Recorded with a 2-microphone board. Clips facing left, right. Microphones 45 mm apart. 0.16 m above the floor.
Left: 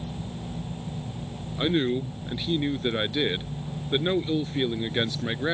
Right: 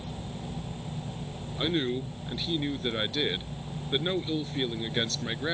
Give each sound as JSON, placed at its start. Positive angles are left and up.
{"t": 1.6, "sound": "a man speaking", "side_deg": 15}